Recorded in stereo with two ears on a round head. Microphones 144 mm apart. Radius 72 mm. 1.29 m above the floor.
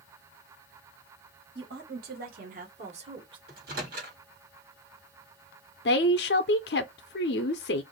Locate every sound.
1.6 s a woman speaking: 75° right (ahead or behind), 1.6 m; by 3.4 s 30° right (ahead or behind), 1.3 m
3.5 s a microwave: 65° right (ahead or behind), 1.6 m
5.8 s a woman speaking: 75° left (ahead or behind), 0.5 m